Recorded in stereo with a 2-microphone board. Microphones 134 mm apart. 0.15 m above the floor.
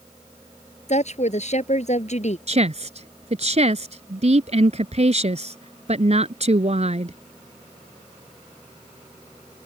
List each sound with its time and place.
0.9 s a woman speaking: 60° left (ahead or behind)
2.5 s a woman speaking: 55° right (ahead or behind)